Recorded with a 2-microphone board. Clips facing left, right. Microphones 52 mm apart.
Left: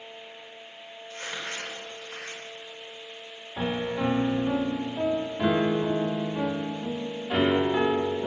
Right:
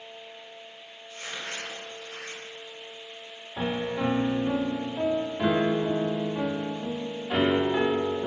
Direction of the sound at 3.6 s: 5° left (ahead or behind).